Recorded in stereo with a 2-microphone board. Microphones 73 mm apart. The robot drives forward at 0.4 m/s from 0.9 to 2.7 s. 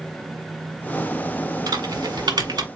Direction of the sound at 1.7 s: 70° right (ahead or behind).